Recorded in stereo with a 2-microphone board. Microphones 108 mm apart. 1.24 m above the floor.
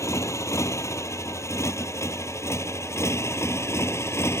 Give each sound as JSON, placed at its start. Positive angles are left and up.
{"t": 0.0, "sound": "a motorcycle", "side_deg": 25}